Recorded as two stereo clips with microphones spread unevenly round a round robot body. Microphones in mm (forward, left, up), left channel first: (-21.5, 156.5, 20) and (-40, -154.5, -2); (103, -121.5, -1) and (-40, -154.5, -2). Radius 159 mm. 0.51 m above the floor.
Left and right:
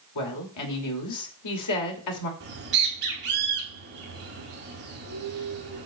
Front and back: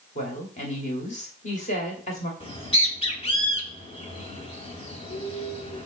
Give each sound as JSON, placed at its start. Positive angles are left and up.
{"t": 0.1, "sound": "a woman speaking", "azimuth_deg": 60, "distance_m": 2.5}
{"t": 2.4, "sound": "a bird", "azimuth_deg": -35, "distance_m": 3.5}